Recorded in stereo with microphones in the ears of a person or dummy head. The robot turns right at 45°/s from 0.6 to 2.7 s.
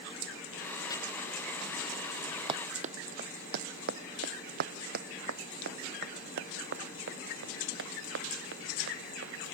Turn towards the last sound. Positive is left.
turn(degrees=-70)  # may be behind; listen again after turning